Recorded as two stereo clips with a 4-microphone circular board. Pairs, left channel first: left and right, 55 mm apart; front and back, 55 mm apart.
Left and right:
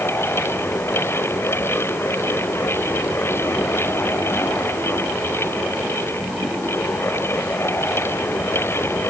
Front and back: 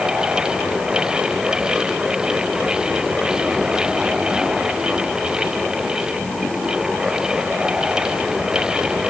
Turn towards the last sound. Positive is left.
No sound to turn to.